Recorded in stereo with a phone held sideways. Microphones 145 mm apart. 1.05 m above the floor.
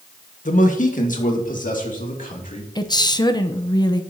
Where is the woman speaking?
30° left (ahead or behind), 0.7 m.